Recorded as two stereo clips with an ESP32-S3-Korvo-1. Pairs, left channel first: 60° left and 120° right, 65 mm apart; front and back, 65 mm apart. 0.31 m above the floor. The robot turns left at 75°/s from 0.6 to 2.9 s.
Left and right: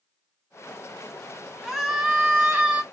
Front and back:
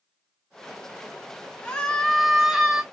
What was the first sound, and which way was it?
A scream, 30° right.